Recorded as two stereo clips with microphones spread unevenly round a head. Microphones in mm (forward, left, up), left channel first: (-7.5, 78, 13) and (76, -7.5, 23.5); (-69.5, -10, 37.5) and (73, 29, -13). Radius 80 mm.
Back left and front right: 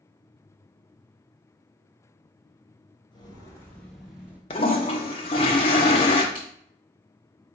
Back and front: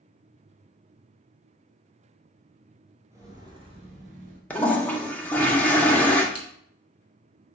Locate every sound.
3.1 s footsteps: 105° left, 1.2 m; by 4.4 s 10° left, 1.2 m
4.5 s a toilet flushing: 150° left, 0.6 m
6.3 s scissors: 145° right, 1.2 m